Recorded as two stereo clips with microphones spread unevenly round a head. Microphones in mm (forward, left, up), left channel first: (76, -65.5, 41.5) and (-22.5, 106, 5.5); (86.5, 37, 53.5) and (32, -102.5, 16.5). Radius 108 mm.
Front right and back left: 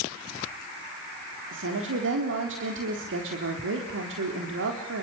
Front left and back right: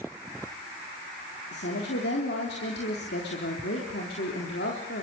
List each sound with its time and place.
1.5 s a woman speaking: 105° left, 4 m